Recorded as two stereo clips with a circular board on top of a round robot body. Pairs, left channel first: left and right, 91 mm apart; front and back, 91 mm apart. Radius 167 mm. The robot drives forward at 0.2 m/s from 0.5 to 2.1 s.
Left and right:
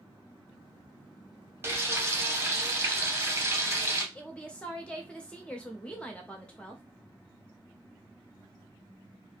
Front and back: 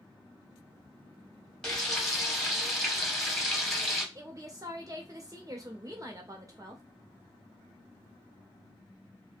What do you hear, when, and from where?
1.6 s frying: 75° right, 1.1 m; by 4.0 s 85° right, 1.1 m
4.2 s a woman speaking: 160° left, 0.8 m